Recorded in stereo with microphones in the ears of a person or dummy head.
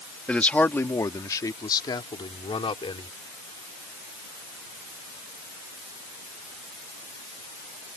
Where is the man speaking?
5° left (ahead or behind); by 3.1 s 30° left (ahead or behind).